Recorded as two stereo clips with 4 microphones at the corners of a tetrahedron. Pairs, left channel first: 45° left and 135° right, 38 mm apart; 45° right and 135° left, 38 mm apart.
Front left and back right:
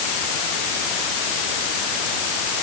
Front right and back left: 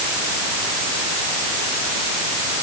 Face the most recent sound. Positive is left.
No sound to turn to.